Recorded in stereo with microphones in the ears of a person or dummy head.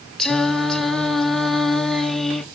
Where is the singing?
5° left (ahead or behind), 0.8 m.